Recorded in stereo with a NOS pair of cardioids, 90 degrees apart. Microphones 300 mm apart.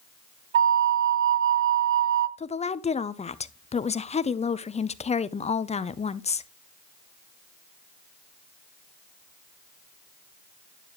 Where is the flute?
45° right, 0.7 m.